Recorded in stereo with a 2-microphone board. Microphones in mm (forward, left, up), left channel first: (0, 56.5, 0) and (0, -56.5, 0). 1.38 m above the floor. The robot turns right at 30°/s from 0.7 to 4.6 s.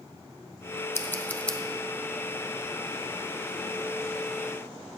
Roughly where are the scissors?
Left.